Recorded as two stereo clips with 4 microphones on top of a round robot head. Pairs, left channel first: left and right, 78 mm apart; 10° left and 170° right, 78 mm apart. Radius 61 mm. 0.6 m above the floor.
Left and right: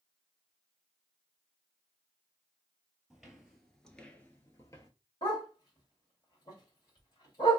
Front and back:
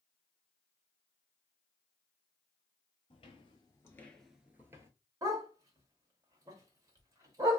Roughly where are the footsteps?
Ahead.